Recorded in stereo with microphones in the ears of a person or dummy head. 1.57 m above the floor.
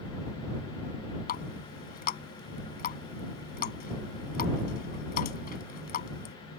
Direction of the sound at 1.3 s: 50° left (ahead or behind).